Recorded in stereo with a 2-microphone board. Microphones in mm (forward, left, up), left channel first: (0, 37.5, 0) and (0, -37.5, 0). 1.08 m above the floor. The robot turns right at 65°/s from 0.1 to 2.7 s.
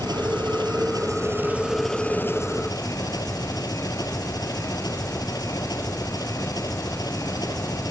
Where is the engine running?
110° right; by 7.9 s 55° left.